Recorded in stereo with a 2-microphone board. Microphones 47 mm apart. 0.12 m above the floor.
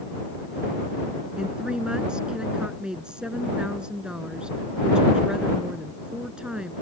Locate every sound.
1.4 s a woman speaking: 20° right (ahead or behind)